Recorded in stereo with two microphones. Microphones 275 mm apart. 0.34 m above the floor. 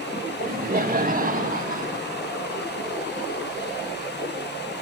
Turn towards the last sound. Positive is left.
turn(degrees=-30)  # may be behind; listen again after turning